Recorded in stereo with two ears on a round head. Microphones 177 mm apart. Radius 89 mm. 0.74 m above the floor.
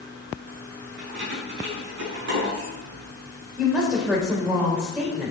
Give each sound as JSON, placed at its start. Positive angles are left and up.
{"t": 1.0, "sound": "keys jangling", "side_deg": -60, "distance_m": 5.5}
{"t": 3.6, "sound": "a woman speaking", "side_deg": -5, "distance_m": 3.5}